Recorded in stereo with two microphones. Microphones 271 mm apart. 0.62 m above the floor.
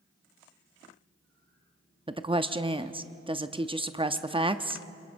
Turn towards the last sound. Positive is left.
turn(degrees=-20)  # may be behind; listen again after turning